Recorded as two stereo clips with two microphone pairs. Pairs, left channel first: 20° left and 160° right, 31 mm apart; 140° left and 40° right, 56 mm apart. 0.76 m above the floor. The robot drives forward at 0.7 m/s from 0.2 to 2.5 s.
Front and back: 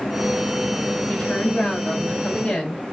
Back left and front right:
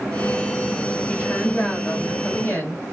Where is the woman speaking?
70° left, 5 m; by 2.8 s 80° left, 4.5 m.